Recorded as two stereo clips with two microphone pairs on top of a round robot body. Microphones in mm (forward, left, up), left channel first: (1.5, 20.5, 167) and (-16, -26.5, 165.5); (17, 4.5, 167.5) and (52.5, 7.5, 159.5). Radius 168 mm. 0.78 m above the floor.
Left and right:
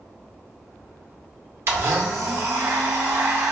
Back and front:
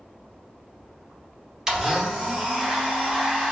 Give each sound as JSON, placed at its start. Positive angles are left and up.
{"t": 1.7, "sound": "a blender", "azimuth_deg": -70, "distance_m": 0.5}